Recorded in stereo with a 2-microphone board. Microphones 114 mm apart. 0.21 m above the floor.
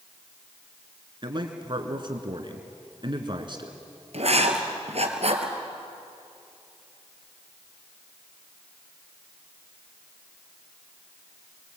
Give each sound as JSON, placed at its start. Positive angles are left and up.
{"t": 1.2, "sound": "a man speaking", "side_deg": -45, "distance_m": 2.0}
{"t": 4.1, "sound": "writing", "side_deg": -65, "distance_m": 2.5}